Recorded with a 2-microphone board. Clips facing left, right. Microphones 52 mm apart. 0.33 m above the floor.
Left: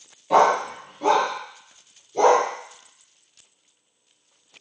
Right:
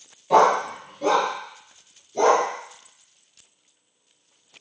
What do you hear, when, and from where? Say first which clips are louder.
0.3 s a dog barking: right 1 dB; centre (ahead or behind), 0.5 m; by 2.4 s 20° left (ahead or behind), 2.5 m